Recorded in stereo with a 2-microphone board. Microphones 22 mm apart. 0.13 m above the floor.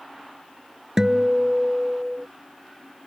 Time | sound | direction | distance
1.0 | a guitar | 30° right (ahead or behind) | ?